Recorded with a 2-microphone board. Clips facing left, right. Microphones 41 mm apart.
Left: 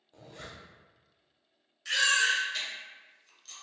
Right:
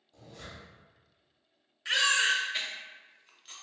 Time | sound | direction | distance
0.1 | a zipper | 45° left (ahead or behind) | 0.6 m
1.9 | a baby crying | 30° right (ahead or behind) | 0.6 m